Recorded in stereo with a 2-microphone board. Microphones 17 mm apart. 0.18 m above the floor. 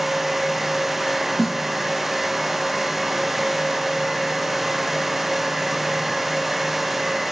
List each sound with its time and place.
1.4 s a snare drum: 15° right (ahead or behind), 0.7 m